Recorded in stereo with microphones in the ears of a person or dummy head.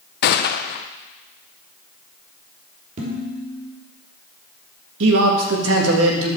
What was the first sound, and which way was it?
A gunshot, 60° left (ahead or behind).